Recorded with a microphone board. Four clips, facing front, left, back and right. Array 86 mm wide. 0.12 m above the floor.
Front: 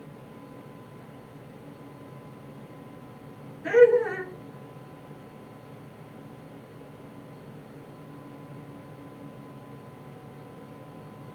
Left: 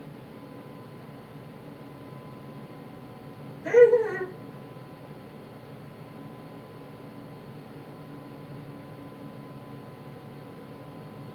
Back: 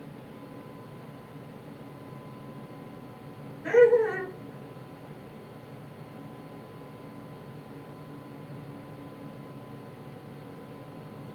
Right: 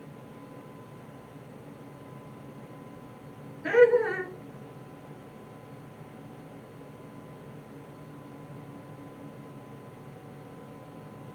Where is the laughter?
80° right, 1.1 m.